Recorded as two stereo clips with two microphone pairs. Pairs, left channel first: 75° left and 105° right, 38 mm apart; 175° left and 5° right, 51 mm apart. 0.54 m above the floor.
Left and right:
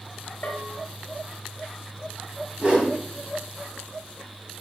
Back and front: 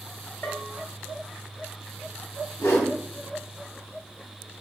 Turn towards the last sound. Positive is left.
turn(degrees=-165)